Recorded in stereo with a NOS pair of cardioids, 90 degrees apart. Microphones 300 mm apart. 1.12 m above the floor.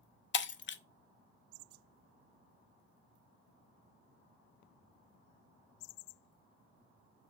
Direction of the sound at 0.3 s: 40° left.